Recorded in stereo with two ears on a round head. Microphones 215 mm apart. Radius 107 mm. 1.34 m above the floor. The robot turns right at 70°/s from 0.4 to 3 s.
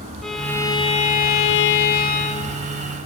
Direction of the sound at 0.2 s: Straight ahead.